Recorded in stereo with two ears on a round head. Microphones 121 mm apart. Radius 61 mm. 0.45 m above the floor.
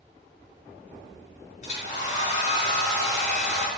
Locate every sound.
1.6 s a hair dryer: 50° left (ahead or behind), 5 m